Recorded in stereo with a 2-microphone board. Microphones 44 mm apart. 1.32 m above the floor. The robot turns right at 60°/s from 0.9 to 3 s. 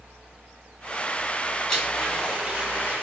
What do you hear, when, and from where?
1.7 s a blender: 155° left, 1.4 m; by 3.0 s 130° right, 1.4 m